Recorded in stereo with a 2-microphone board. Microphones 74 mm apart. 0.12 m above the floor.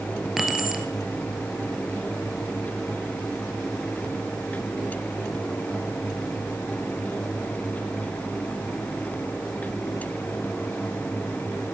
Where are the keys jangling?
5° right (ahead or behind), 1.7 m.